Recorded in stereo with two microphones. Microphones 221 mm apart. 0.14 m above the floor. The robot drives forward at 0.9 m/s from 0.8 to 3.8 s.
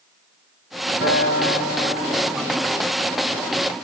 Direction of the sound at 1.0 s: 65° left (ahead or behind).